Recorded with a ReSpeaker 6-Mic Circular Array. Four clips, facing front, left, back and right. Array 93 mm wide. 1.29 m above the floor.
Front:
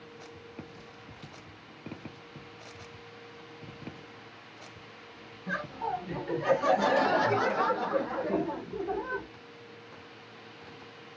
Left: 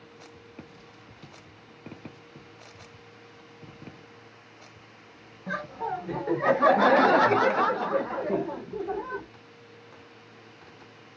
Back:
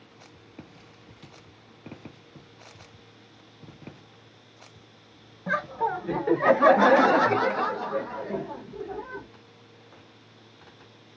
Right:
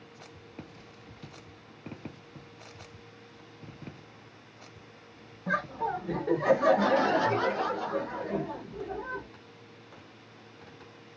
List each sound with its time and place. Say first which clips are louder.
5.5 s laughter: right 1 dB, back 6 dB; straight behind, 1.1 m; by 9.3 s 60° left, 1.2 m